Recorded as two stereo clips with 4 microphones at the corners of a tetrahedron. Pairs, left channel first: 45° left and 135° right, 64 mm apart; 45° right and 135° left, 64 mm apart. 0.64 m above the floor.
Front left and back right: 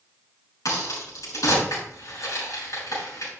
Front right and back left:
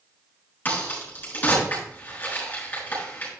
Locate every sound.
0.7 s a crack: 15° left, 7 m